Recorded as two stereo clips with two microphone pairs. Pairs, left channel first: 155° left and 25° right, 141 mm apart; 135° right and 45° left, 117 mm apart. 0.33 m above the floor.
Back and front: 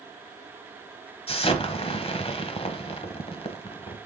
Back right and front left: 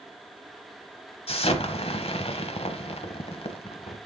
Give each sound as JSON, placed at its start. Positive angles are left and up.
{"t": 1.3, "sound": "an explosion", "azimuth_deg": -160, "distance_m": 1.0}